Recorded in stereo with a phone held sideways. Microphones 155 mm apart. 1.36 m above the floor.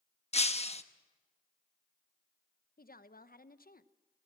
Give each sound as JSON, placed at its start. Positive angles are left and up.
{"t": 0.3, "sound": "breaking glass", "side_deg": 45, "distance_m": 0.9}
{"t": 2.8, "sound": "a woman speaking", "side_deg": 70, "distance_m": 0.9}